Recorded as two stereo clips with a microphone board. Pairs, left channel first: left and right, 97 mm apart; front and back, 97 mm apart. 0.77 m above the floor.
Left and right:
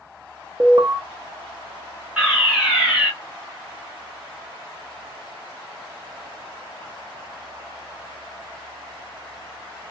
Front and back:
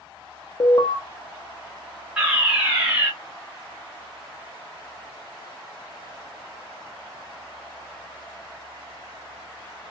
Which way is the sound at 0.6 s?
40° right.